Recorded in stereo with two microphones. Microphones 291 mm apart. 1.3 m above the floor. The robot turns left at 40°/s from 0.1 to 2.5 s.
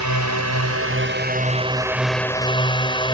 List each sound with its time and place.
0.0 s a drone: 100° right; by 3.1 s 165° left